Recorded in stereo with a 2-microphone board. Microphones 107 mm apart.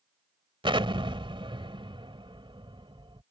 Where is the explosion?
50° right (ahead or behind).